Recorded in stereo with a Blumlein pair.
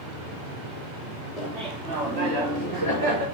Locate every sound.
1.4 s laughter: 30° right, 2.5 m; by 3.2 s 55° right, 4.5 m